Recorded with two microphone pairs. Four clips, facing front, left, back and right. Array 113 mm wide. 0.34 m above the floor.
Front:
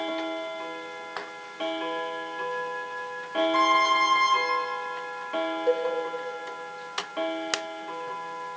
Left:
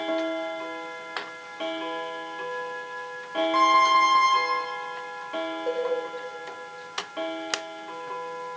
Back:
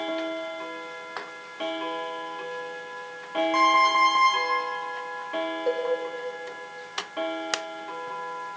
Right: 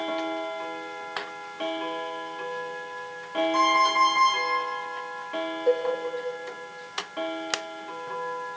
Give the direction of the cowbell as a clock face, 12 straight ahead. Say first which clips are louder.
Right 6 dB, front 3 dB; 6 o'clock.